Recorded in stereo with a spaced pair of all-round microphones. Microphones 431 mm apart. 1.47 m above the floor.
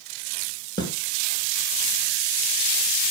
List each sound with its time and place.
0.8 s a snare drum: 10° left (ahead or behind), 3.5 m